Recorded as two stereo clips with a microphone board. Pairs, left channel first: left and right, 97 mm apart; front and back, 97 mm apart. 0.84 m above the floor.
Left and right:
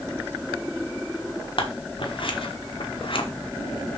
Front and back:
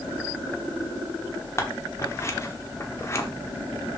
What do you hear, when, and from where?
1.6 s scissors: 60° left, 1.2 m